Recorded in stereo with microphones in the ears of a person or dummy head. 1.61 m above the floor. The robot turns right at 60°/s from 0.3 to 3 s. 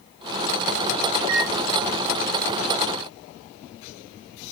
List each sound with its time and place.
1.2 s a microwave: 80° right, 1.0 m; by 1.5 s 65° right (ahead or behind), 1.0 m